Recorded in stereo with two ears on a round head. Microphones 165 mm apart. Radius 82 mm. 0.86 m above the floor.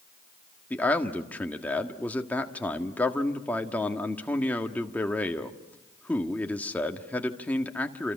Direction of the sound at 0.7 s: 10° left (ahead or behind).